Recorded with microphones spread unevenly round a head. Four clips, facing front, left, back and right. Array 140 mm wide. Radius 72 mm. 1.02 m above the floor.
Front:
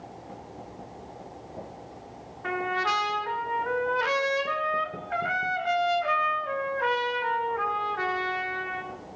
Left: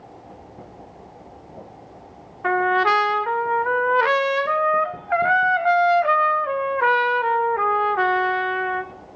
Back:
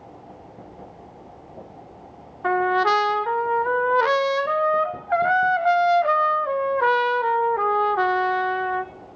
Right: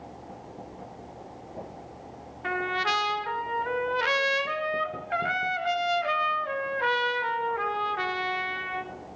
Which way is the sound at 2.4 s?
150° left.